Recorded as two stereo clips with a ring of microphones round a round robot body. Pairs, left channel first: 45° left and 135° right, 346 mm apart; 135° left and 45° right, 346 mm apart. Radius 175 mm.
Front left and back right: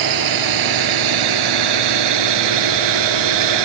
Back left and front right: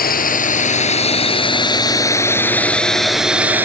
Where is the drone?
160° right; by 3.6 s 130° right.